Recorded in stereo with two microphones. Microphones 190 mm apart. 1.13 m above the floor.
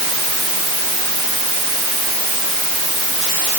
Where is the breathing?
I don't hear breathing.